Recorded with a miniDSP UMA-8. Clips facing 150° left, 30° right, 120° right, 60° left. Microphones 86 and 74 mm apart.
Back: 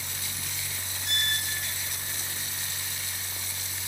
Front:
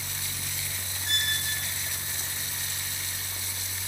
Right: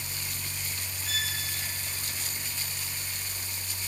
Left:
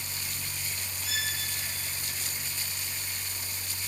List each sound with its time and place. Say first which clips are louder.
1.1 s a violin: even, even; 85° right, 3 m